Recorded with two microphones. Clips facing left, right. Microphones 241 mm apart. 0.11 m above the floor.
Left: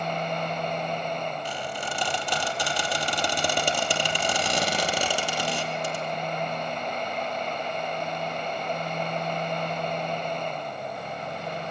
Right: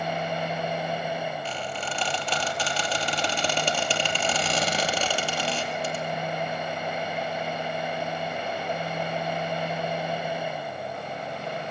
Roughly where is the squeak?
Centre.